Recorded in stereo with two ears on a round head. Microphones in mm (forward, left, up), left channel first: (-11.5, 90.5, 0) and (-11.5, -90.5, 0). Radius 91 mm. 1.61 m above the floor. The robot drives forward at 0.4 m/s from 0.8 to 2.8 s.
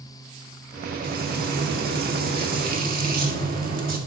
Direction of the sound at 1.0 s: 50° right (ahead or behind).